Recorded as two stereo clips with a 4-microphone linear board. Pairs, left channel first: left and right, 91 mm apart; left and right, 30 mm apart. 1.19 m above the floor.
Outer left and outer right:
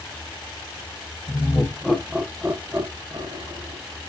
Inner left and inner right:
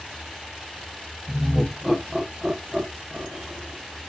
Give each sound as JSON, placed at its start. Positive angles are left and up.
{"t": 1.3, "sound": "laughter", "side_deg": 20, "distance_m": 0.9}